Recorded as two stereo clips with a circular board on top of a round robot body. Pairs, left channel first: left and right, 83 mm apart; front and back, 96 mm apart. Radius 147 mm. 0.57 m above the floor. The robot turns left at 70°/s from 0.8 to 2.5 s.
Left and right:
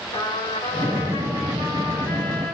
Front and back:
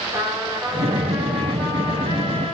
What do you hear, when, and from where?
0.1 s a trumpet: 120° left, 5 m; by 2.5 s 5° left, 5 m